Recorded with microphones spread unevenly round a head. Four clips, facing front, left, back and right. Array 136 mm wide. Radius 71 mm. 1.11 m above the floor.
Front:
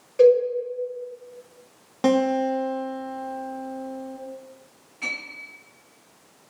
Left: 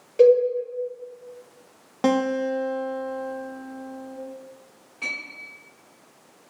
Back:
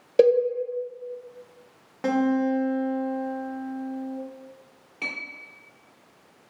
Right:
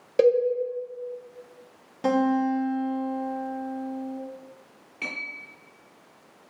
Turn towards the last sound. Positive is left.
turn(degrees=180)